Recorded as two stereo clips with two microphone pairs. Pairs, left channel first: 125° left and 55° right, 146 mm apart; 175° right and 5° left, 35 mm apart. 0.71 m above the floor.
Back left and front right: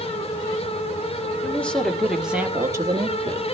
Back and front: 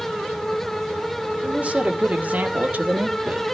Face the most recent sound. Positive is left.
turn(degrees=-10)